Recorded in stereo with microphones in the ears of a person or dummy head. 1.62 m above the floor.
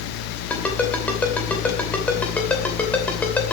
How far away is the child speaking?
No child speaking in this recording.